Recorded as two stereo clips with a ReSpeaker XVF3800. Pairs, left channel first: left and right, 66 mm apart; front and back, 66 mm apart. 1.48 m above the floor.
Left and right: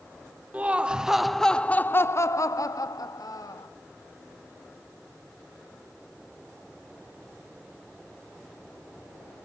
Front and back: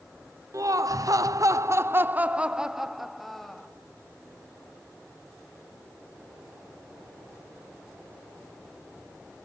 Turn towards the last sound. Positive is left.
turn(degrees=85)